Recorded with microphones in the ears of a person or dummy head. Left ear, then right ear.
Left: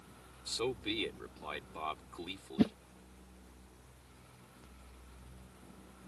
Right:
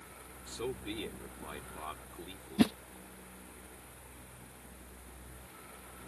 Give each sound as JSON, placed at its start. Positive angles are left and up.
{"t": 0.5, "sound": "a man speaking", "side_deg": 30}
{"t": 2.6, "sound": "a whoosh", "side_deg": -30}